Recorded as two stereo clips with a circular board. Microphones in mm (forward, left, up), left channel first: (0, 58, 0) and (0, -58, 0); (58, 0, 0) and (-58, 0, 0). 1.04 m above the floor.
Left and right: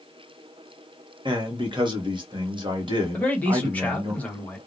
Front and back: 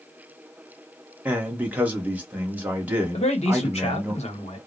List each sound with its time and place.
1.2 s a man speaking: 110° right, 1.0 m
3.1 s a man speaking: 15° left, 1.1 m